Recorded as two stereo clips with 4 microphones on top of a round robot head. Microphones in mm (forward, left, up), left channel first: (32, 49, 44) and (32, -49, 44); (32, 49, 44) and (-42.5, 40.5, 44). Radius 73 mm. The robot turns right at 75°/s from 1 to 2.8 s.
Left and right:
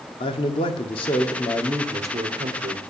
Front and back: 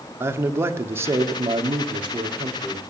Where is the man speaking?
130° left, 1.2 m; by 2.8 s 95° right, 1.2 m.